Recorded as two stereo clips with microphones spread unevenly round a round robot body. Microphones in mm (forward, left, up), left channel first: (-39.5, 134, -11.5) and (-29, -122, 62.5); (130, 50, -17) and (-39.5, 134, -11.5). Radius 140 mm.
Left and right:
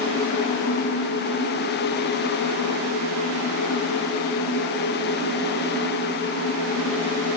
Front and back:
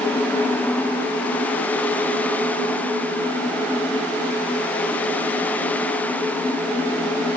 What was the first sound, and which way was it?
Only background noise.